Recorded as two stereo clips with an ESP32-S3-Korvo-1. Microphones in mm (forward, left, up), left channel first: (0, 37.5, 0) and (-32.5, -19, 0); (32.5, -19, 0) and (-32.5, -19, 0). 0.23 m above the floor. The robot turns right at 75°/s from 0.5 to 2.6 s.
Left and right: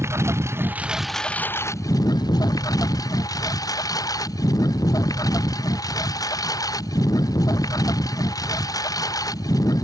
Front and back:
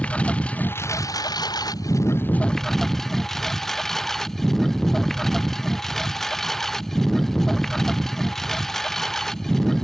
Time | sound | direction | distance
0.0 | a lawn mower | 75° right | ?